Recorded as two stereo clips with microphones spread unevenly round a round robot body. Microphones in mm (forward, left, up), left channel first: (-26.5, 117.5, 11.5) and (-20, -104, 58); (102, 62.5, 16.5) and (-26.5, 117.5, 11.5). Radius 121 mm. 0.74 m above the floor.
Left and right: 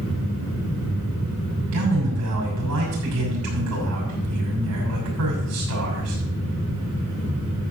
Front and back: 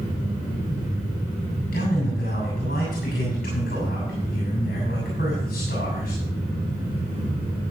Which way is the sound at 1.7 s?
65° right.